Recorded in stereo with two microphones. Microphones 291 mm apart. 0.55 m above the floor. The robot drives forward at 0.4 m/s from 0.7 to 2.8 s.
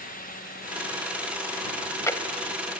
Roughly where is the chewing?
Centre.